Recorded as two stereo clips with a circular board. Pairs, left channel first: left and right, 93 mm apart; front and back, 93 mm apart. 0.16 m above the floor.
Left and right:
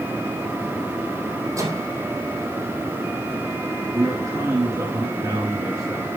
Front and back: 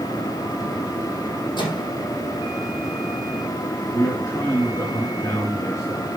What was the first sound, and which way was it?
A microwave, 35° right.